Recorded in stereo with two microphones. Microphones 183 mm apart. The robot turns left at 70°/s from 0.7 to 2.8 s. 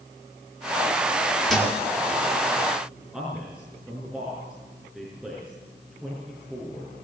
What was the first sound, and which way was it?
A thud, 5° left (ahead or behind).